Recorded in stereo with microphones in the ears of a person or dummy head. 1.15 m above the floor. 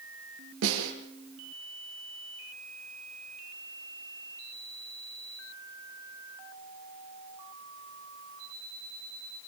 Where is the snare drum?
75° right (ahead or behind), 8.5 m.